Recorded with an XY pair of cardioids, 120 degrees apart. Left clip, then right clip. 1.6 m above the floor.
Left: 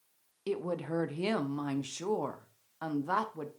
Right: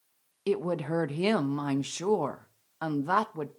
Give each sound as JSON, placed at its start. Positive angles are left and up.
{"t": 0.5, "sound": "a woman speaking", "azimuth_deg": -30, "distance_m": 0.6}